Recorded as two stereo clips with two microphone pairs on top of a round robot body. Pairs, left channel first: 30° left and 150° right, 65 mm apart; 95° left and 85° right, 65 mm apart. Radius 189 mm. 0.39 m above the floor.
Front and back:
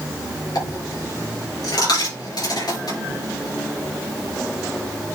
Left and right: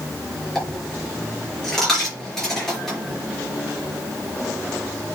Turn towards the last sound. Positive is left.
turn(degrees=15)